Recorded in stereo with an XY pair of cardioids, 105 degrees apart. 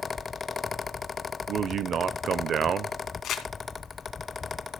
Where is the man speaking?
55° right, 0.8 m.